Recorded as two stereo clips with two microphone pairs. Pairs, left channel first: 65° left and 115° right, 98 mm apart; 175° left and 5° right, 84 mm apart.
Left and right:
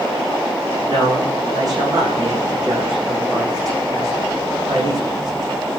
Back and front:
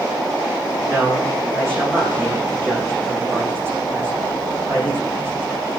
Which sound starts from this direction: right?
A man speaking, at 0.9 s.